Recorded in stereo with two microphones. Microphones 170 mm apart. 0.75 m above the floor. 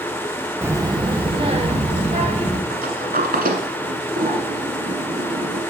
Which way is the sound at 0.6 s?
15° right (ahead or behind).